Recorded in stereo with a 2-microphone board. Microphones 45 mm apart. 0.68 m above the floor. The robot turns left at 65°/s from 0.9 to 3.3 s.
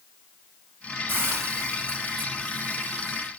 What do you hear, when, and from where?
1.1 s a hiss: 50° right, 2.5 m; by 3.3 s 165° left, 2.5 m